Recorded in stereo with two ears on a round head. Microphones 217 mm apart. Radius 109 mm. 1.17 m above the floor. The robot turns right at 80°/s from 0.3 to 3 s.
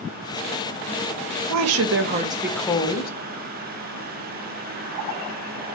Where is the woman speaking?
85° right, 0.6 m; by 3.1 s 40° left, 0.6 m.